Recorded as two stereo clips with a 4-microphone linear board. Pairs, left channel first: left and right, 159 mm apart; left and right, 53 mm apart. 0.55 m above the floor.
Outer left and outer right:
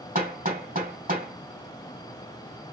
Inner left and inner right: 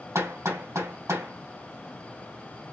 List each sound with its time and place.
0.1 s hammering: 60° right (ahead or behind), 3 m